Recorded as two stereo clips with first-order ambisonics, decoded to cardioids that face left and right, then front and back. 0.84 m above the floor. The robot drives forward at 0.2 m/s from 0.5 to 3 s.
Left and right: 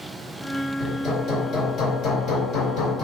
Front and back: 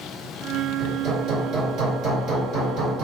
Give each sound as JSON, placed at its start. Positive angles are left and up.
{"t": 0.8, "sound": "hammering", "azimuth_deg": 135, "distance_m": 1.6}